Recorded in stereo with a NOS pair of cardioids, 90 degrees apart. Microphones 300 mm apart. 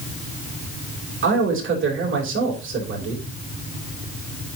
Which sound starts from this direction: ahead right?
A man speaking, at 1.2 s.